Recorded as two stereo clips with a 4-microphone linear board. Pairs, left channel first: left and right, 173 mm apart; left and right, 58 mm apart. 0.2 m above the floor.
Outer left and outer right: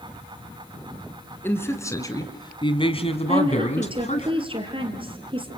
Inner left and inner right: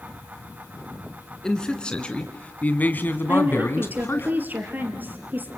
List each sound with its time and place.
1.4 s a man speaking: 10° left (ahead or behind), 2.5 m; by 4.3 s 45° left (ahead or behind), 2 m
3.3 s a woman speaking: 30° right (ahead or behind), 3.5 m